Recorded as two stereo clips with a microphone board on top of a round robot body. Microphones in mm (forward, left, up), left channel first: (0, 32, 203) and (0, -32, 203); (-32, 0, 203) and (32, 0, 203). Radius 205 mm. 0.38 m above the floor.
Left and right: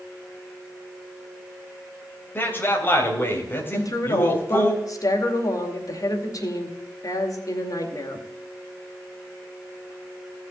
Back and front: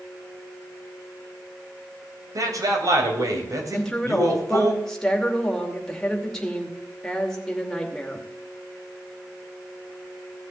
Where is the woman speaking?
100° left, 2.5 m.